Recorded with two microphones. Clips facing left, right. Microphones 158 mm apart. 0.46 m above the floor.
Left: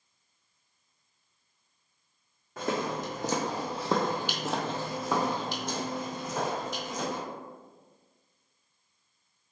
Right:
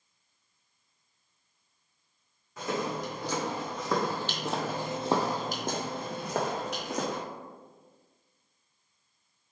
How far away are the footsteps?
About 1.3 m.